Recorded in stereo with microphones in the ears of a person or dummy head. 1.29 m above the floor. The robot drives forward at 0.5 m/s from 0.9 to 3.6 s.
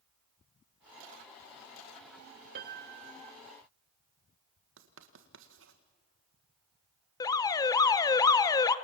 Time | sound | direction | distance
2.5 | a piano | 50° right (ahead or behind) | 1.1 m
4.8 | writing | 65° right (ahead or behind) | 1.7 m
7.2 | an alarm | 25° left (ahead or behind) | 1.1 m